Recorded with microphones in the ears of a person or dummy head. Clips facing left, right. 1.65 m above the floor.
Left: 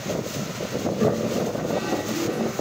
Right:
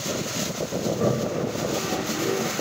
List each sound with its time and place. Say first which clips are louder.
0.8 s a toilet flushing: left 2 dB; 25° left (ahead or behind), 2.5 m